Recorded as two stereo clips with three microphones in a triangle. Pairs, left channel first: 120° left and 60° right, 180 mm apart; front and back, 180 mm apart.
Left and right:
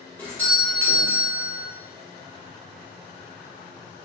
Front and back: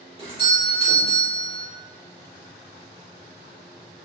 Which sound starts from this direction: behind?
A doorbell, at 0.2 s.